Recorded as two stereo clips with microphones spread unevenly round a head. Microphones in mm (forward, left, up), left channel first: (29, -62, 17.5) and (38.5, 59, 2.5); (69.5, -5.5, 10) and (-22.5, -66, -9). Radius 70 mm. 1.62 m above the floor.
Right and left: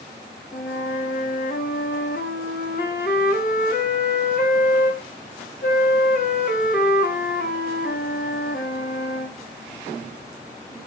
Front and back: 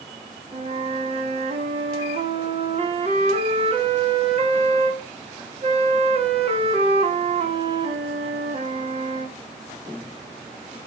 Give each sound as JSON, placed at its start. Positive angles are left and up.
{"t": 0.5, "sound": "a flute", "azimuth_deg": -115, "distance_m": 3.0}